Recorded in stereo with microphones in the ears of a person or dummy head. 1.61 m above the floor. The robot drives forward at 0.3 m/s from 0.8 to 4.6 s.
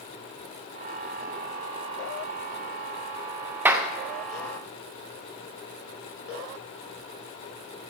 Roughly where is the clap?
Centre.